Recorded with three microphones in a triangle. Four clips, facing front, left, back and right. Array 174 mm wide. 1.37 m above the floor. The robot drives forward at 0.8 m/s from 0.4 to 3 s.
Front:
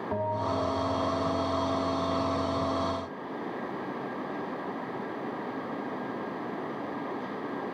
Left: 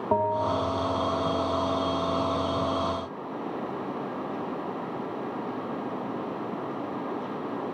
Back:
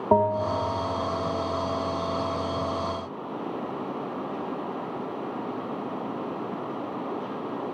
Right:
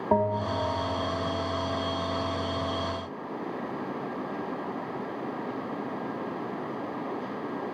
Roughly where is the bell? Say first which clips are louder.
Left 1 dB, back 8 dB; behind.